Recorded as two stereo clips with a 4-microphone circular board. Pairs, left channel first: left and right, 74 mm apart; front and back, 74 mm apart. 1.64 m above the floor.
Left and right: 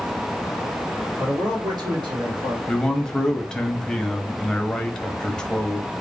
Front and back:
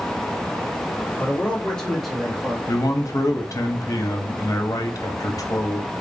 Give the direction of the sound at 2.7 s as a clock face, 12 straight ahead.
12 o'clock.